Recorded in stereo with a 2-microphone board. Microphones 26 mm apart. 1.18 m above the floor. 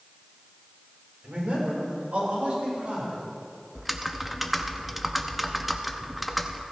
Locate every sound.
1.2 s a man speaking: 65° right (ahead or behind), 4.5 m
3.8 s typing on a keyboard: 5° right (ahead or behind), 0.8 m